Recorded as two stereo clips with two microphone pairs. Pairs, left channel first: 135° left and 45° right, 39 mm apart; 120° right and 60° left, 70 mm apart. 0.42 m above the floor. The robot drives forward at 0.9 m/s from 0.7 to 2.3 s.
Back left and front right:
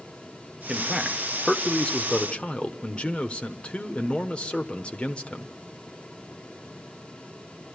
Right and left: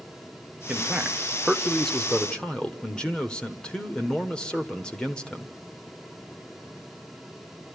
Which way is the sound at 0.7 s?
5° left.